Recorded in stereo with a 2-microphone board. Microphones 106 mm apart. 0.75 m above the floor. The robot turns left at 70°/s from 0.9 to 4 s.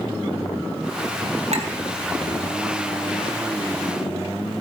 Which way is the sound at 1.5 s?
80° right.